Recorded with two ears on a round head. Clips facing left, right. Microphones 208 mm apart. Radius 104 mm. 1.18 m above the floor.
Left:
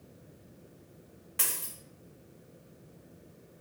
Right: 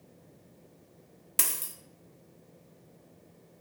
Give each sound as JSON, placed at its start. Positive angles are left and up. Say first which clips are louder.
{"t": 1.4, "sound": "a dropped coin", "louder": "right 1 dB", "side_deg": -55, "distance_m": 0.8}